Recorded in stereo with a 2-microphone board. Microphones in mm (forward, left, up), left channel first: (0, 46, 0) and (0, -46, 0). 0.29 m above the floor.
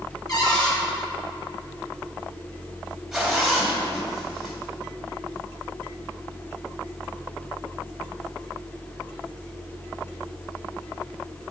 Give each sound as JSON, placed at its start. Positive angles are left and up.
{"t": 0.3, "sound": "a cupboard door", "side_deg": 45, "distance_m": 2.0}
{"t": 3.1, "sound": "a zipper", "side_deg": 0, "distance_m": 1.7}